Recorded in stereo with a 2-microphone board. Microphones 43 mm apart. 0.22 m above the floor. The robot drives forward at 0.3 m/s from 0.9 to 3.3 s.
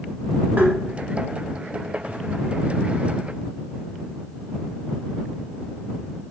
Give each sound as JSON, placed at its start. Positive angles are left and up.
{"t": 0.6, "sound": "tapping", "side_deg": -40, "distance_m": 0.7}